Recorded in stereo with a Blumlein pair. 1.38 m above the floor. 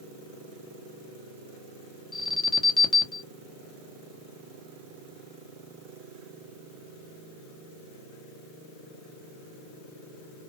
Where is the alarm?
10° left, 0.9 m.